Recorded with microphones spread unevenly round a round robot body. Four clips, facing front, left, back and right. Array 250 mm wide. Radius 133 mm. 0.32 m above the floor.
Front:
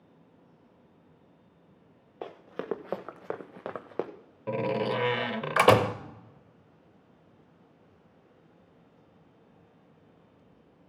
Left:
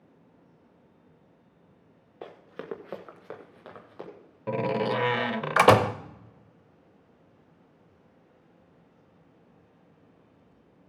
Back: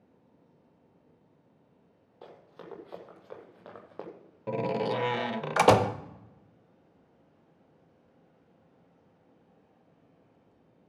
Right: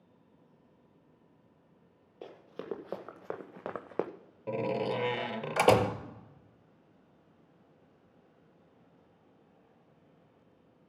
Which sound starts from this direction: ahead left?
A door slam, at 4.5 s.